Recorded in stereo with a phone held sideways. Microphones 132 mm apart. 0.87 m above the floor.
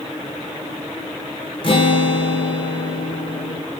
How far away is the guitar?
About 0.7 m.